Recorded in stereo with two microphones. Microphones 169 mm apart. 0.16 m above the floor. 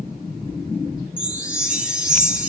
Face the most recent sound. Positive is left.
turn(degrees=-5)  # may be behind; listen again after turning